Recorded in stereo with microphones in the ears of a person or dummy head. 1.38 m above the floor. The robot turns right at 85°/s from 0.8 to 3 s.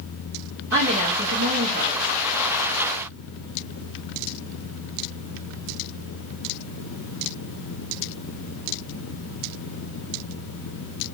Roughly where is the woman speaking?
Behind right.